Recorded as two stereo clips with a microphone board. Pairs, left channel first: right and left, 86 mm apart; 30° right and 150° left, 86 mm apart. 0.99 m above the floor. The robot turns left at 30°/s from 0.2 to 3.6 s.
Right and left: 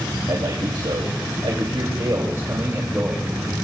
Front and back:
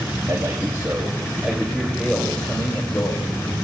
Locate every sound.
0.3 s a man speaking: 105° left, 2 m; by 3.5 s 5° left, 2 m